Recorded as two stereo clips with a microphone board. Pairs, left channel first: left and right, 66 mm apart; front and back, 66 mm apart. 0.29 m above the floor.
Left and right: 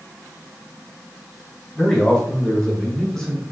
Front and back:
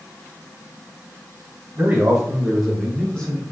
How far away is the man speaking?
About 1.2 m.